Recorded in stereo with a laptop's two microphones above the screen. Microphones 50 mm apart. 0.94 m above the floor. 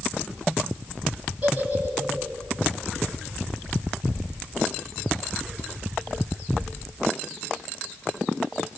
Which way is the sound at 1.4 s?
25° right (ahead or behind).